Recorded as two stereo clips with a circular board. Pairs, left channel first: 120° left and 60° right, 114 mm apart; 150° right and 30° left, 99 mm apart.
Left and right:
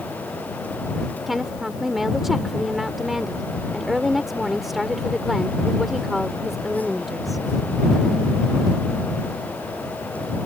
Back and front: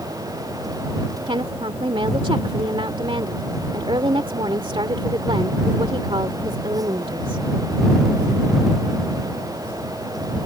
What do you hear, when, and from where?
1.3 s a woman speaking: 30° left